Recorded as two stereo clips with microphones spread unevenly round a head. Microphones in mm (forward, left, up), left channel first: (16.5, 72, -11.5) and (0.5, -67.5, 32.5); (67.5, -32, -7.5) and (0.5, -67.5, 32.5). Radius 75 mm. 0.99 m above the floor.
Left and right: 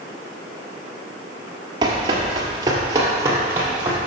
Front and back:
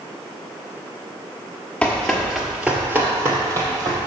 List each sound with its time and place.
1.8 s running footsteps: 65° right, 1.4 m; by 4.0 s 165° right, 2 m